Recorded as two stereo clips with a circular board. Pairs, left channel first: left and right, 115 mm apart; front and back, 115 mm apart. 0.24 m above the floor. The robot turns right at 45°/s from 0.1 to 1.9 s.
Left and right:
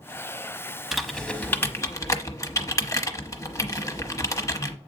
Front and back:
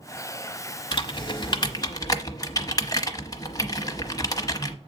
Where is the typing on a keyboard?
5° right, 0.9 m; by 4.8 s 40° left, 0.9 m.